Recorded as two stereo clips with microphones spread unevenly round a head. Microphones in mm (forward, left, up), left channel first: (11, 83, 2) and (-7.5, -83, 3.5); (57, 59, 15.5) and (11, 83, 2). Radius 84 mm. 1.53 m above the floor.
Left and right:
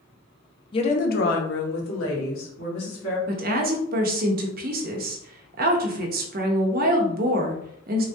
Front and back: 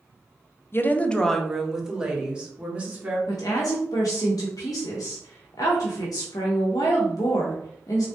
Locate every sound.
0.7 s a woman speaking: 25° left, 0.6 m; by 3.2 s 90° left, 2.0 m
3.3 s a woman speaking: 60° right, 0.7 m